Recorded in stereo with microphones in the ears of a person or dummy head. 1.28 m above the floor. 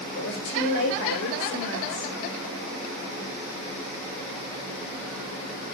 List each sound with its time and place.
0.1 s a woman speaking: 80° left, 5 m